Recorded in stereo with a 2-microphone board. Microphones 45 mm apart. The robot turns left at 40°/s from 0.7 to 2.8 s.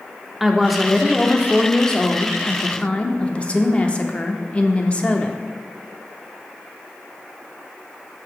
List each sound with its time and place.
0.4 s a woman speaking: 5° right (ahead or behind), 0.7 m; by 5.4 s 25° left (ahead or behind), 0.7 m